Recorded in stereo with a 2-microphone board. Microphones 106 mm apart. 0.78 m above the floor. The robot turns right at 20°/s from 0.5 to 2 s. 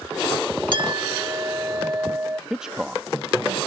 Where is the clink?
50° right (ahead or behind); by 2.4 s 25° right (ahead or behind).